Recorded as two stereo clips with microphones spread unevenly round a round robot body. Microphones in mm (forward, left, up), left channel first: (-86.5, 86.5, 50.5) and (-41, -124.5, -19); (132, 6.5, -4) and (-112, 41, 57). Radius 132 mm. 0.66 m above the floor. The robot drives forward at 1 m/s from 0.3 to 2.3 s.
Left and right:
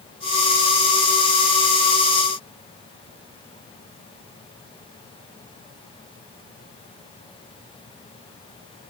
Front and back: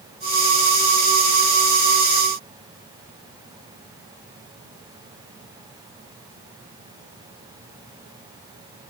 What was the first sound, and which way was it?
Only background noise.